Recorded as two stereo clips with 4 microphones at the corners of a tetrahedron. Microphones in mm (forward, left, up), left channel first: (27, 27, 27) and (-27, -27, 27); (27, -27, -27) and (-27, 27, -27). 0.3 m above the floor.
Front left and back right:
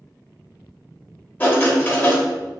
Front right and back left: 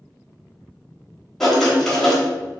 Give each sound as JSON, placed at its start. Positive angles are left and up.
{"t": 1.4, "sound": "writing", "azimuth_deg": 35, "distance_m": 0.8}